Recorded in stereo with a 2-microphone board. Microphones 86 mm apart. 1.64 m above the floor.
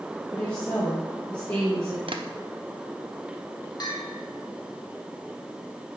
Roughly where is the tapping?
Right.